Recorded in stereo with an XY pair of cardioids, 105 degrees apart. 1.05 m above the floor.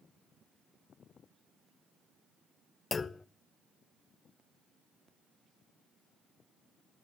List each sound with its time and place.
2.9 s a clunk: 35° left, 0.6 m